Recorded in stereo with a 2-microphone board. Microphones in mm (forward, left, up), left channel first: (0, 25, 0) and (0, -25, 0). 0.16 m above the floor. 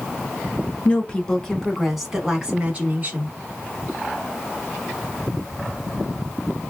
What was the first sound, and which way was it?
A woman speaking, 25° left (ahead or behind).